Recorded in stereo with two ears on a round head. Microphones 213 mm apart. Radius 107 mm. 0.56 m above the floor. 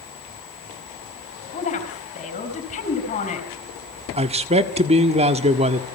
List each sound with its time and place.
1.5 s a woman speaking: 30° left (ahead or behind), 4.5 m
4.2 s a man speaking: 25° right (ahead or behind), 1.6 m